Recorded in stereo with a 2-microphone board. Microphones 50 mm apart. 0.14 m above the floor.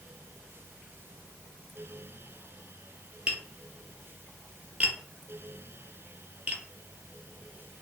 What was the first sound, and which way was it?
Tapping, 25° right (ahead or behind).